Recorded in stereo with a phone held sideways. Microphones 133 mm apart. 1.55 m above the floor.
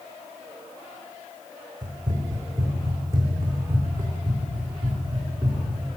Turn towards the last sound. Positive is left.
turn(degrees=-10)  # may be behind; listen again after turning